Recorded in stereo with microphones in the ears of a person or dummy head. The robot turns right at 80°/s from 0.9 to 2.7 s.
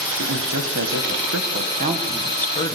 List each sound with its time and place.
0.2 s a man speaking: 110° right, 1.6 m; by 2.8 s 35° left, 1.6 m